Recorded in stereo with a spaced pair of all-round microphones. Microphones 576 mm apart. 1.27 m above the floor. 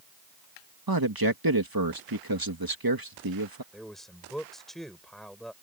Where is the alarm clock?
No alarm clock in this recording.